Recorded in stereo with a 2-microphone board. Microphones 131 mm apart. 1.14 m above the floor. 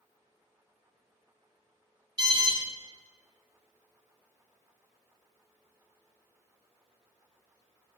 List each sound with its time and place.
2.2 s an alarm: 30° right (ahead or behind), 1.8 m